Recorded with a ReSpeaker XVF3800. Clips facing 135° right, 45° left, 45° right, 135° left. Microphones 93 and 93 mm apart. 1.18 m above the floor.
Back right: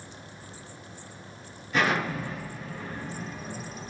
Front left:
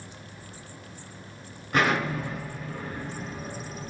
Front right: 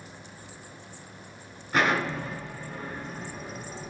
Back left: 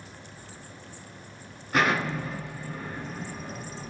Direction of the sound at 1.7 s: 45° left.